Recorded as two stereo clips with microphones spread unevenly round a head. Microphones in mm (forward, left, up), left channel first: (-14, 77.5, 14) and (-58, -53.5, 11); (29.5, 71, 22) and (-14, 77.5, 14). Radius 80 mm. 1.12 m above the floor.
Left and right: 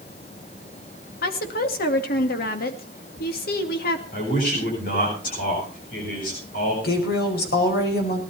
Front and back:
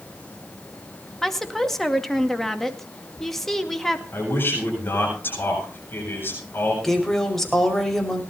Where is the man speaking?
30° left, 8.5 m.